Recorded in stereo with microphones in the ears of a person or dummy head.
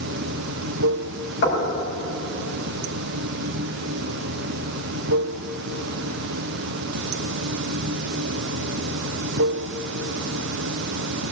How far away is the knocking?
About 8.5 m.